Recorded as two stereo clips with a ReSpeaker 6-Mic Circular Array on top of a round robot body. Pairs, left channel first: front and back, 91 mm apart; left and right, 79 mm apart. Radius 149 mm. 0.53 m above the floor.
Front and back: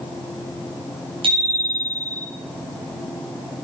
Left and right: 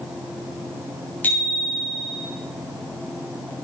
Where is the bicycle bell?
160° left, 5.5 m.